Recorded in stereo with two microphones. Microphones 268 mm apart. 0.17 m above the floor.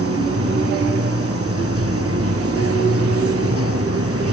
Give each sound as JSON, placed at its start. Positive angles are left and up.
{"t": 0.0, "sound": "running water", "side_deg": -60}